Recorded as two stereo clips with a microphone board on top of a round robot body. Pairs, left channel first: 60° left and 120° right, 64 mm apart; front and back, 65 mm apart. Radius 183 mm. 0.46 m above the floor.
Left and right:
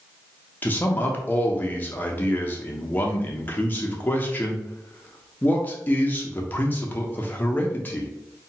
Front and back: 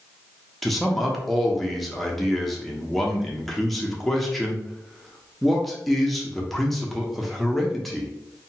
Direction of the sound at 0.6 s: 85° left.